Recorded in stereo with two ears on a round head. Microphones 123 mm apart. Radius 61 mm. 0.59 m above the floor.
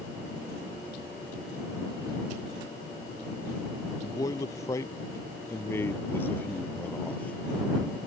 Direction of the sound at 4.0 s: 25° left (ahead or behind).